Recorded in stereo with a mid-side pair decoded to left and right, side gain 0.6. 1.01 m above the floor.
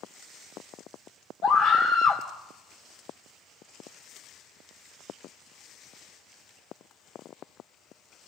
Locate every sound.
1.4 s a scream: 55° left, 2.5 m